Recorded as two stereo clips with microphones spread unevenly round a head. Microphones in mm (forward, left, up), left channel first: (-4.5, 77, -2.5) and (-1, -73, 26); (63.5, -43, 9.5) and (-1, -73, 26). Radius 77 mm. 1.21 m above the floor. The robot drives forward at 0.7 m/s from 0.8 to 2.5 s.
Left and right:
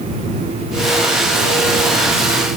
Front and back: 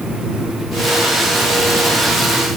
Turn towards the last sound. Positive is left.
No sound to turn to.